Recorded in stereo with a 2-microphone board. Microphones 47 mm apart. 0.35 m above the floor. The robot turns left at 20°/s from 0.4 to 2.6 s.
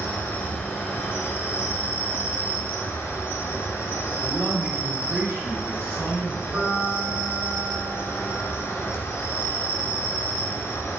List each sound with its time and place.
0.0 s an insect: 130° left, 0.8 m; by 11.0 s 85° left, 0.8 m
4.2 s a man speaking: 65° right (ahead or behind), 1.9 m
6.5 s a piano: 60° right (ahead or behind), 2.0 m